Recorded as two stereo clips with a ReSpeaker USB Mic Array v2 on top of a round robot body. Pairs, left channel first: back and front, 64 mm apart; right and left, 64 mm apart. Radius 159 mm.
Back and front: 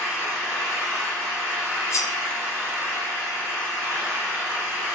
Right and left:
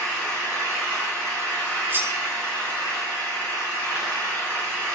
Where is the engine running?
25° right, 1.5 m.